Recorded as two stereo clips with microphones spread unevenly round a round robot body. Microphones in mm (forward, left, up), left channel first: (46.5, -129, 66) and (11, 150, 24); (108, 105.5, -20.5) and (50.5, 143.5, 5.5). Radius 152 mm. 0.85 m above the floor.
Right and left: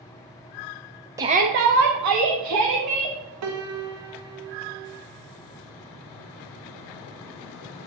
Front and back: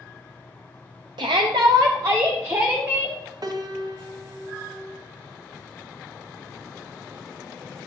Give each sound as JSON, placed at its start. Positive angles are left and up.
{"t": 1.2, "sound": "a shout", "azimuth_deg": 165, "distance_m": 0.6}
{"t": 3.4, "sound": "a piano", "azimuth_deg": 105, "distance_m": 1.1}